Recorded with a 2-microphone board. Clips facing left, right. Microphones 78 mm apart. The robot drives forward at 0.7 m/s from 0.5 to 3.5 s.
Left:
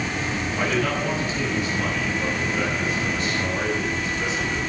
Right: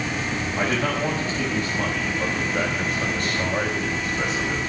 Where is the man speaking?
40° right (ahead or behind), 6 m; by 4.7 s 55° right (ahead or behind), 4.5 m.